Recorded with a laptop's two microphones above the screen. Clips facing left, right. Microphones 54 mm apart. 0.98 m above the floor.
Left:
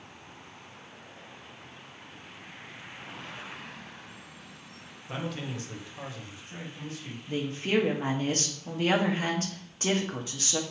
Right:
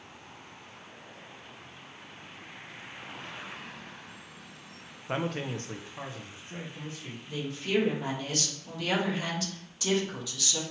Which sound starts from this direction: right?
A man speaking, at 5.1 s.